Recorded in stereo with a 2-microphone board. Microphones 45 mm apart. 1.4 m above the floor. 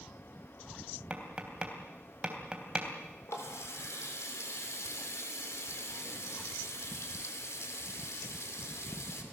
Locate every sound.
1.1 s tapping: 25° right (ahead or behind), 3.5 m
3.3 s a running tap: 80° left, 3 m